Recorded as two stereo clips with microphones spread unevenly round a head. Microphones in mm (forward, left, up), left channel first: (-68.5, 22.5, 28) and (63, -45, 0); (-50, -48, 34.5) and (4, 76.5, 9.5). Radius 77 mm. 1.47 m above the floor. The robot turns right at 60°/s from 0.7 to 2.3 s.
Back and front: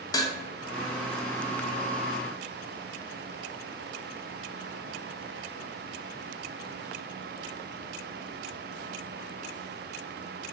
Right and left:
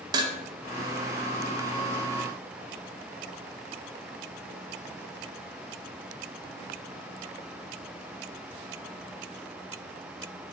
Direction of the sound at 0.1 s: 125° left.